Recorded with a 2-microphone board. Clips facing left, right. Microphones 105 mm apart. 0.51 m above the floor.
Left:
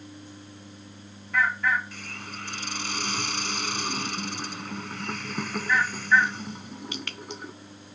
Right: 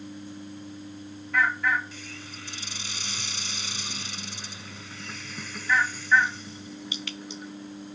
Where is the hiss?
55° left (ahead or behind).